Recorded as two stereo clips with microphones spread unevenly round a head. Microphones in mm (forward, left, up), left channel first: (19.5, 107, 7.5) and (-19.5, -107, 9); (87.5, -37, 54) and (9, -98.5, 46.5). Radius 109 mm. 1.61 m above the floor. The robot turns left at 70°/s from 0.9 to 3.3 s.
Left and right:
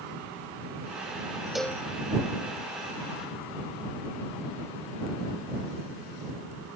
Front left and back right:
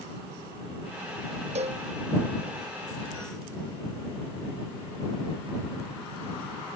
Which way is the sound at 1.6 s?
170° left.